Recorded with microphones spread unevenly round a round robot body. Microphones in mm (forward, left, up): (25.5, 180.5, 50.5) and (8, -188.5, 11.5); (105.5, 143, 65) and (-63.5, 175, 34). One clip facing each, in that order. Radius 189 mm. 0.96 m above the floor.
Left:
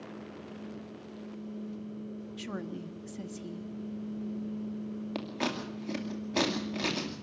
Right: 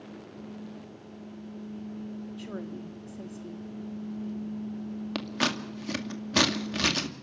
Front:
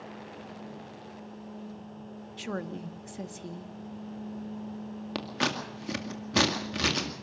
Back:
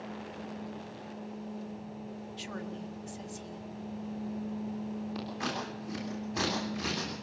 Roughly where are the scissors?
Ahead right.